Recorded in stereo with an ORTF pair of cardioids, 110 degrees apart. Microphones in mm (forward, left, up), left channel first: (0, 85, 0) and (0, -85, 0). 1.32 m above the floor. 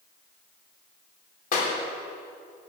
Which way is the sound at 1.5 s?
55° left.